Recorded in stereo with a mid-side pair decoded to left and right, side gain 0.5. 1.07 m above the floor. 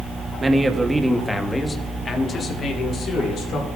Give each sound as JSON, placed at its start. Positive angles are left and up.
{"t": 0.4, "sound": "a man speaking", "azimuth_deg": -20, "distance_m": 1.2}